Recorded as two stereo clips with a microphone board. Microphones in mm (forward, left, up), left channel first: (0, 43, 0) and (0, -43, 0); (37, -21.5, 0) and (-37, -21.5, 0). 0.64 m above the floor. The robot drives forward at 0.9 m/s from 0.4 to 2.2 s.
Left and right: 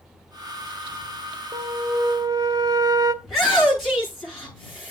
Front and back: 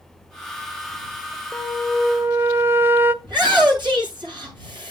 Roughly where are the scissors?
I don't hear scissors.